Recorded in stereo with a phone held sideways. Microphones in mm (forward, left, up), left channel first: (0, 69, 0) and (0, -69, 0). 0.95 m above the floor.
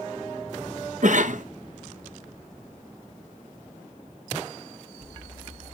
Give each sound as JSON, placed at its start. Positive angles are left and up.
{"t": 1.0, "sound": "a cough", "side_deg": -65, "distance_m": 0.6}